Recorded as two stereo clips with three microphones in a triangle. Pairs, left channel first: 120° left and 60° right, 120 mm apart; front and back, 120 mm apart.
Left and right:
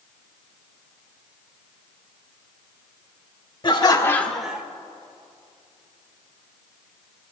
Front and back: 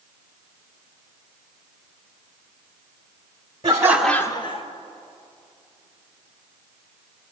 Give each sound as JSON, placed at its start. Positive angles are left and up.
{"t": 3.6, "sound": "laughter", "azimuth_deg": 150, "distance_m": 0.9}